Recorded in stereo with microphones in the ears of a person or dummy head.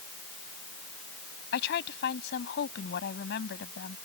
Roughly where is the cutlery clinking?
No cutlery clinking in this recording.